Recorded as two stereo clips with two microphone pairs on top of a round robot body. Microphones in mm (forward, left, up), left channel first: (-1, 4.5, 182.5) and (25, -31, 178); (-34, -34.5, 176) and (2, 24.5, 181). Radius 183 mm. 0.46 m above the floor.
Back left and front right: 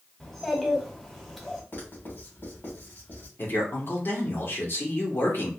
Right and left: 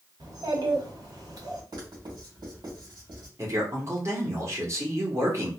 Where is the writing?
80° left, 2.5 m.